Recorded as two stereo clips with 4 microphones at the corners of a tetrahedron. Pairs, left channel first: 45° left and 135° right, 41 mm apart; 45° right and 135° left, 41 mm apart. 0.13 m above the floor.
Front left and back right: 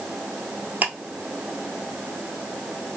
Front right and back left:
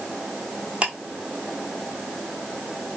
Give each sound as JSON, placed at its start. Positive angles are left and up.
{"t": 0.8, "sound": "ticking", "azimuth_deg": -170, "distance_m": 1.1}